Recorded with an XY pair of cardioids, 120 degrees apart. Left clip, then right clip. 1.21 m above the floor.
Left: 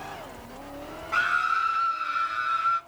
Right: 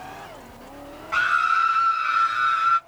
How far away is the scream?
About 0.7 m.